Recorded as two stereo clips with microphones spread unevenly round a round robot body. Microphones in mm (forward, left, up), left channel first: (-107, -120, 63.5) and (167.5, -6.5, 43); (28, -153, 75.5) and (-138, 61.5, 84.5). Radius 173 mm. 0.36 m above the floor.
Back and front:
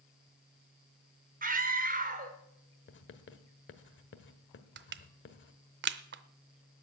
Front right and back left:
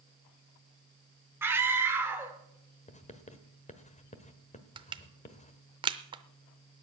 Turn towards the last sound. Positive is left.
turn(degrees=60)